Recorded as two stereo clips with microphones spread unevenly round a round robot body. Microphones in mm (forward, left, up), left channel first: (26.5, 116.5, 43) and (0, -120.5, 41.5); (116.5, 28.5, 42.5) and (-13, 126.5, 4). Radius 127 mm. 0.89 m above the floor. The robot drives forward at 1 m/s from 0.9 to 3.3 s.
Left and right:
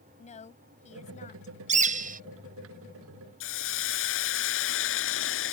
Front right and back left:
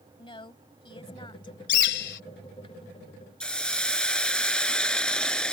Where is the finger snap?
I don't hear a finger snap.